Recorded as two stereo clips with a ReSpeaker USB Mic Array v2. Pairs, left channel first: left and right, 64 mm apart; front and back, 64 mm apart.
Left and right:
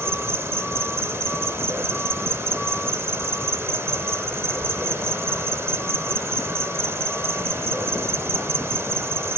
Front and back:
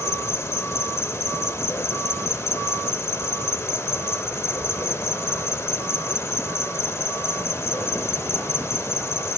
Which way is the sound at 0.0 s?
45° right.